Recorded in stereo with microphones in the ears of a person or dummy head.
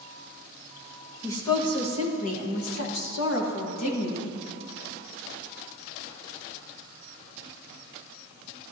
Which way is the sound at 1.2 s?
15° left (ahead or behind).